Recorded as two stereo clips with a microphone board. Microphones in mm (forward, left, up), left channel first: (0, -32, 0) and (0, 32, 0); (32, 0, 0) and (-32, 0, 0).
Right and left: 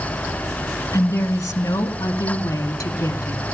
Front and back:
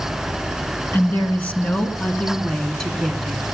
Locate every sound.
0.9 s a woman speaking: 60° right, 2.5 m; by 3.5 s 95° right, 2.5 m